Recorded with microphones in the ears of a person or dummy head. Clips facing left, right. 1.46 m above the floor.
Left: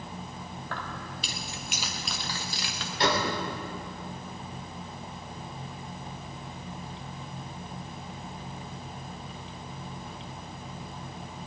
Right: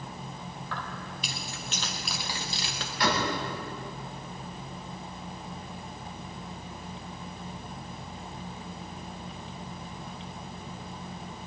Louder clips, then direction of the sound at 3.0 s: Left 1 dB; 25° left (ahead or behind).